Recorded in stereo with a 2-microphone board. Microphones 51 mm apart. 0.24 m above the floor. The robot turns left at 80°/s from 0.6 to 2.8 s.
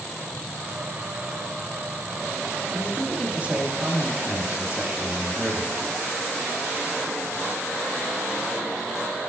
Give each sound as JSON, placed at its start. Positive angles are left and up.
{"t": 2.7, "sound": "a man speaking", "side_deg": -25, "distance_m": 1.6}